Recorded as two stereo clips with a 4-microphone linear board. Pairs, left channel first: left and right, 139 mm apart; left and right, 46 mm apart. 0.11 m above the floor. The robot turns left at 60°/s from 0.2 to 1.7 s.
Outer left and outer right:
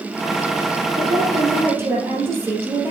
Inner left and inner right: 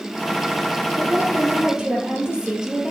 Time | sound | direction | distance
1.0 | a woman speaking | 115° right | 2 m